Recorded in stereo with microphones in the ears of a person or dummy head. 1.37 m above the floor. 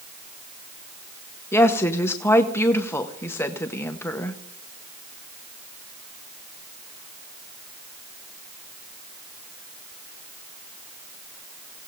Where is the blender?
No blender in this recording.